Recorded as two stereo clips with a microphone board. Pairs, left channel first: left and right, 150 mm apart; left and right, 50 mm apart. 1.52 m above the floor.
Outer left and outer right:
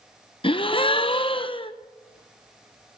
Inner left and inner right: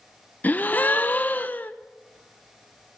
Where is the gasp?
35° left (ahead or behind), 0.6 m.